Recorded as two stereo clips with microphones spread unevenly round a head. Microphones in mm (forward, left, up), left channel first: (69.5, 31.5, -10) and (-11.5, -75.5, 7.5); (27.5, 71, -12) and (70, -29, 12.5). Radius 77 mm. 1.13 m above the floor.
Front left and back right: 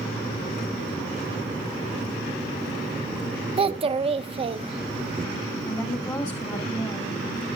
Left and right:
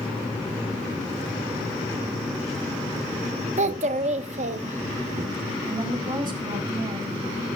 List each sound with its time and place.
3.6 s a child speaking: 80° right, 1.1 m
5.7 s a woman speaking: 15° right, 7.5 m